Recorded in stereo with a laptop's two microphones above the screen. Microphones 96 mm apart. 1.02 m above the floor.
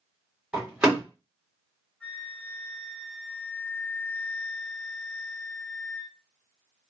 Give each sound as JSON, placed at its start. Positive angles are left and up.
{"t": 0.5, "sound": "a door slam", "side_deg": -10, "distance_m": 1.7}
{"t": 2.0, "sound": "a flute", "side_deg": 15, "distance_m": 0.8}